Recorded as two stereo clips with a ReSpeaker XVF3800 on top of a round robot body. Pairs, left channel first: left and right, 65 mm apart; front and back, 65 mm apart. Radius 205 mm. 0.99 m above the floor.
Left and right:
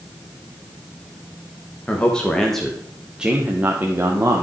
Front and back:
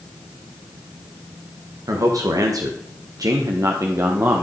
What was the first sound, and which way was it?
A man speaking, 160° left.